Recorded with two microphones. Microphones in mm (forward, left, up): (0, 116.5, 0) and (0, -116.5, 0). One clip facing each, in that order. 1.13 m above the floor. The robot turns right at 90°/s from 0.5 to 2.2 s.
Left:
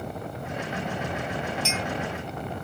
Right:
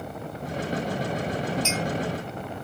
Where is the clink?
20° right (ahead or behind), 1.9 m; by 1.8 s 35° right (ahead or behind), 1.9 m.